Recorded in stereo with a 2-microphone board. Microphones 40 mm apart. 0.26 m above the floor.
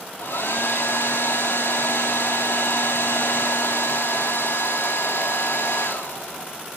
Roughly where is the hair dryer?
Left.